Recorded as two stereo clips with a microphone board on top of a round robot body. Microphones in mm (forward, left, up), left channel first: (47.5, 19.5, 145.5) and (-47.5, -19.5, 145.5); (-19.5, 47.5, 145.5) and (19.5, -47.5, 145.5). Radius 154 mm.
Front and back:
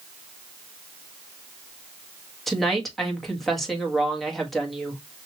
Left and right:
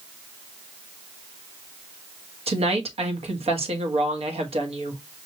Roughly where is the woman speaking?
Ahead right.